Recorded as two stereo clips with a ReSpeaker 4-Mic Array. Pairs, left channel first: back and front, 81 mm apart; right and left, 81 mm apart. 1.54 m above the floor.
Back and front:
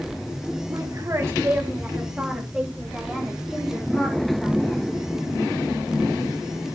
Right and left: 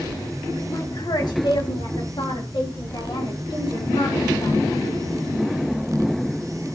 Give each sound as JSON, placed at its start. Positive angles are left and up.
{"t": 0.7, "sound": "a woman speaking", "azimuth_deg": -40, "distance_m": 1.9}